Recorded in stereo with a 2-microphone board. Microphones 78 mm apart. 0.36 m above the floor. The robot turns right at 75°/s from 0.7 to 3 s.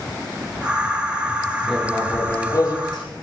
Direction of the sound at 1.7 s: 15° right.